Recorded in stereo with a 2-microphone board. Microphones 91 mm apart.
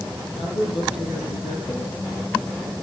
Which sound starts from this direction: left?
A woman speaking, at 0.4 s.